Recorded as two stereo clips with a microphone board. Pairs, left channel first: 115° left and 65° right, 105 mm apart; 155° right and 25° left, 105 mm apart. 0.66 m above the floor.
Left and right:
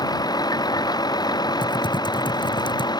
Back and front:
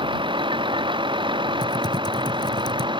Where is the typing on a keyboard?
155° left.